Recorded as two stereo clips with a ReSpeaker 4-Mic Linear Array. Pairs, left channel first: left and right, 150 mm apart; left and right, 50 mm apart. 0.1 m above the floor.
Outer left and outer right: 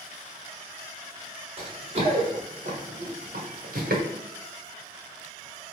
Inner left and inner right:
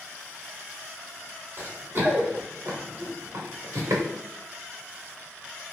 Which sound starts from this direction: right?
Running footsteps, at 1.6 s.